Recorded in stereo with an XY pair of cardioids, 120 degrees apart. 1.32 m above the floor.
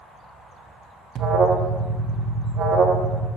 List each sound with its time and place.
1.1 s an alarm: 55° right, 1.3 m